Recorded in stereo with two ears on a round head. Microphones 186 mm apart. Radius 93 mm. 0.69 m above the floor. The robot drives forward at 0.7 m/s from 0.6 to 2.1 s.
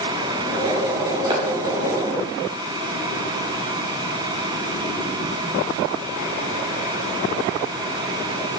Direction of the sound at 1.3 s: 25° right (ahead or behind).